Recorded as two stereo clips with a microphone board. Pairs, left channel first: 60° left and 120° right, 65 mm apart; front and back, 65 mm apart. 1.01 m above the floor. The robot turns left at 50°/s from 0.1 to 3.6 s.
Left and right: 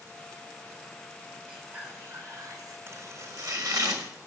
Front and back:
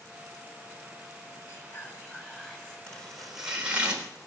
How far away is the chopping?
About 3.5 m.